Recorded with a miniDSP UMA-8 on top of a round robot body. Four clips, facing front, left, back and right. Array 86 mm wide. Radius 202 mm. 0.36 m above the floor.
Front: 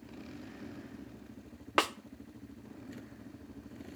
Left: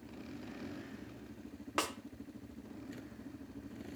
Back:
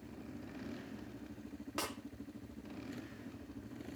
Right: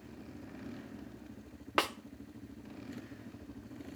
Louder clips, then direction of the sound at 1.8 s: Right 4 dB, front 12 dB; 25° right.